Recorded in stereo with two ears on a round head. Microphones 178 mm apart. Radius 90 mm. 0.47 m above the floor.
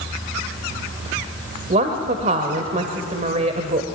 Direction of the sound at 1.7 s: 40° right (ahead or behind).